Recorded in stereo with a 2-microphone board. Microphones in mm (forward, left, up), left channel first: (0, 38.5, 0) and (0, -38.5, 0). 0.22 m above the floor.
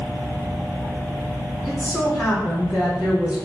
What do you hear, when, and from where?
1.6 s a woman speaking: 10° right (ahead or behind), 1.7 m